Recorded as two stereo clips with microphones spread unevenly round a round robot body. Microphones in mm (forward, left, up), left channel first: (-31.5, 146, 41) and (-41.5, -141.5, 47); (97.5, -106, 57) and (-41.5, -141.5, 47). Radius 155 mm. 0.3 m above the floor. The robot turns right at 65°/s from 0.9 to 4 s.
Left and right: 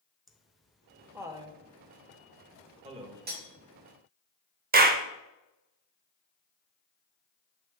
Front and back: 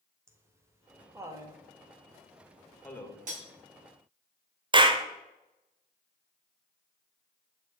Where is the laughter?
175° left, 1.0 m; by 3.2 s 35° right, 1.0 m.